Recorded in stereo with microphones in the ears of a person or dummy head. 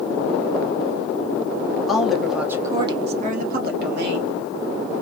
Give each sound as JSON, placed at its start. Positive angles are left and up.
{"t": 1.9, "sound": "a woman speaking", "side_deg": 10, "distance_m": 1.1}